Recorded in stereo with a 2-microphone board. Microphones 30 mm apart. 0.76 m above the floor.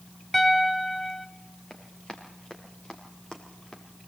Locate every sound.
0.3 s a piano: 15° left (ahead or behind), 1.2 m
1.7 s running footsteps: 35° left (ahead or behind), 5 m; by 3.8 s 20° left (ahead or behind), 3.5 m